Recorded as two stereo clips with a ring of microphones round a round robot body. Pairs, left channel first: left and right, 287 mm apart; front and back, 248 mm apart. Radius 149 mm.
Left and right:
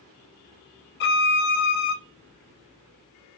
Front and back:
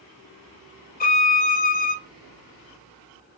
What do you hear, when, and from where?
1.0 s a violin: 45° left, 0.6 m